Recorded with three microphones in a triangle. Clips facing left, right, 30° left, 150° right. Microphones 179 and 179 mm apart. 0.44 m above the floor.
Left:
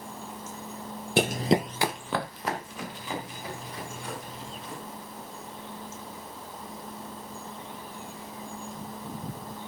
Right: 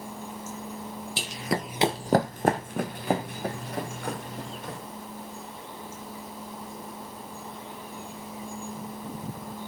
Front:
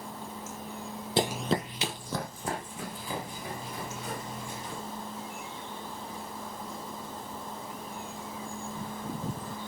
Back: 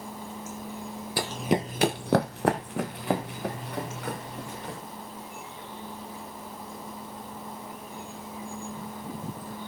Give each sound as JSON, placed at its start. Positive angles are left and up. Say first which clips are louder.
{"t": 1.2, "sound": "running footsteps", "louder": "left 8 dB, back 1 dB", "azimuth_deg": 90, "distance_m": 0.8}